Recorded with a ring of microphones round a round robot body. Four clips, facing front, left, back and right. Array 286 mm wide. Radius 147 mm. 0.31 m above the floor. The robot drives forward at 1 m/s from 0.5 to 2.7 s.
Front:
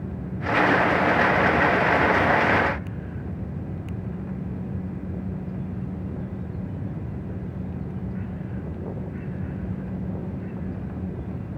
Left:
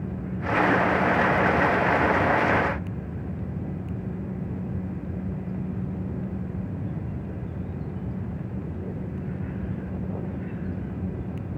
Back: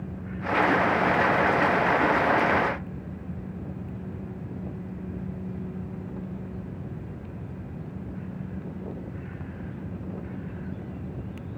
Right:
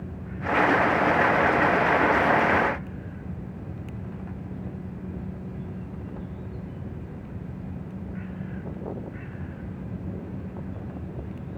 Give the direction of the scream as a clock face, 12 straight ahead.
No scream in this recording.